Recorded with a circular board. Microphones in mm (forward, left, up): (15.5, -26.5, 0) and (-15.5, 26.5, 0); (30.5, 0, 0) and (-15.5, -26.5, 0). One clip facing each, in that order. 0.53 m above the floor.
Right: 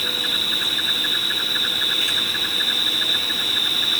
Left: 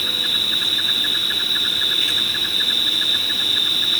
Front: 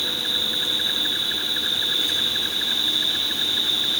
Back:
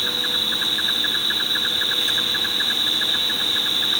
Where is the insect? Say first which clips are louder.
Left 1 dB, back 2 dB; 140° right, 6 m.